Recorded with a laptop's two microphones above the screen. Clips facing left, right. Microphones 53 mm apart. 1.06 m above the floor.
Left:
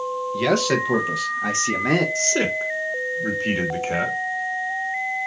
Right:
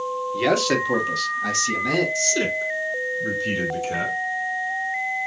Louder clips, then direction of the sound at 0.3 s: Even; 10° right (ahead or behind).